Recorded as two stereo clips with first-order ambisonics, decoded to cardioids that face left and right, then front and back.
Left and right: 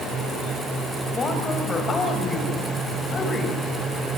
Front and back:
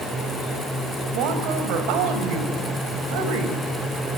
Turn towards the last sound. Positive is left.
turn(degrees=160)